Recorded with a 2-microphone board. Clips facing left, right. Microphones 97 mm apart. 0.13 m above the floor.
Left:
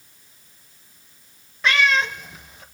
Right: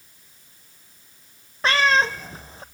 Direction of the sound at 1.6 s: 35° right (ahead or behind).